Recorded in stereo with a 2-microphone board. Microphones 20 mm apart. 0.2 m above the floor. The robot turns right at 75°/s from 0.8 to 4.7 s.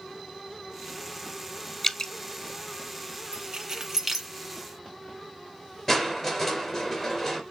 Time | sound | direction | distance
1.8 | dripping | 10° left (ahead or behind) | 0.6 m
3.3 | keys jangling | 55° right (ahead or behind) | 1.8 m
5.9 | crushing | 25° left (ahead or behind) | 3 m